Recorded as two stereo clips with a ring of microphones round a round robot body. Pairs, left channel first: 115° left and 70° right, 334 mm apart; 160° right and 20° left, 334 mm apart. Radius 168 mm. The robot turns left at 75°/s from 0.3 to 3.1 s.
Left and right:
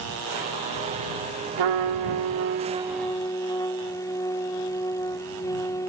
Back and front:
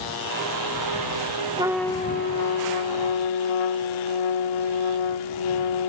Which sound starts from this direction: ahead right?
A trumpet, at 1.6 s.